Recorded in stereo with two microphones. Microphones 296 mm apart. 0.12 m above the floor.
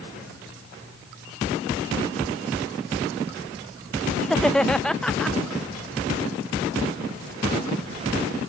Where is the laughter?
5° left (ahead or behind).